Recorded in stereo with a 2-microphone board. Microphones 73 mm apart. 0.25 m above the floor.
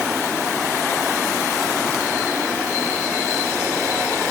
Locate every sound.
Only background noise.